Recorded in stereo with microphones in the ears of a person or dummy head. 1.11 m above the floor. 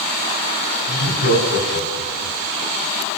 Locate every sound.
0.9 s laughter: 85° left, 7 m; by 2.4 s 80° left, 7.5 m